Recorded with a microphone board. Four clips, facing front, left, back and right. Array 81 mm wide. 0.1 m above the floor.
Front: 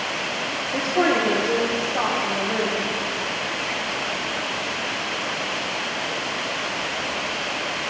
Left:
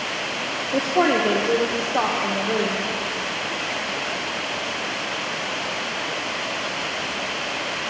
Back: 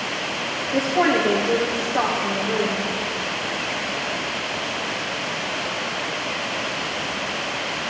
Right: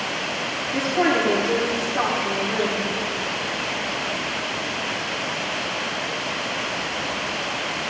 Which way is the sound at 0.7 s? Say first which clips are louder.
Left 1 dB, back 2 dB; 100° left.